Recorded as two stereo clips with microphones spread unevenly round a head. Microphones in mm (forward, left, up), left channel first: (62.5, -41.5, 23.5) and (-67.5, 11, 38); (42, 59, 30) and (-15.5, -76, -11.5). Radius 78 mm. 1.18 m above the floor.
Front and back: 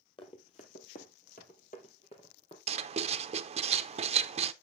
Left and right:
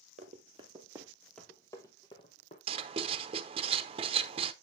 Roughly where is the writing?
Behind right.